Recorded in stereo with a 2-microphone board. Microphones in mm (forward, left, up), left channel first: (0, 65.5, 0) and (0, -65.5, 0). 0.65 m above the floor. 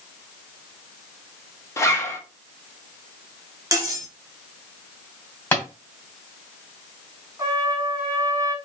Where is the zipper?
20° left (ahead or behind), 1.1 m.